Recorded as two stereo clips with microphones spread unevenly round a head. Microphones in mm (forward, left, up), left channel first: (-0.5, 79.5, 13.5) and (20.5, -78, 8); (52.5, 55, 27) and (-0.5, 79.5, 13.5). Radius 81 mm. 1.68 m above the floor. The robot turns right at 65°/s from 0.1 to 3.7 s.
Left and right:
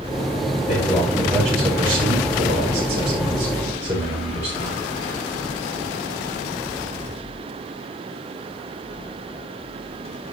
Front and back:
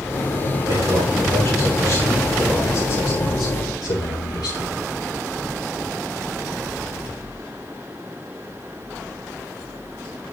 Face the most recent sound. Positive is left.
turn(degrees=-15)